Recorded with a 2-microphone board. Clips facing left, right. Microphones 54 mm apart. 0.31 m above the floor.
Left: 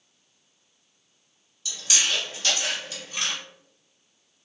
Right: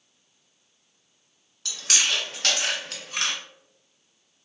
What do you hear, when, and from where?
1.6 s chewing: 70° right (ahead or behind), 0.8 m